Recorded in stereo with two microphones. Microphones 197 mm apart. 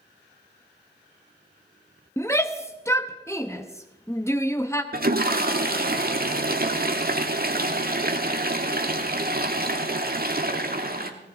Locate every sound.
2.2 s a shout: 15° left (ahead or behind), 0.7 m
4.9 s a toilet flushing: 50° right (ahead or behind), 1.3 m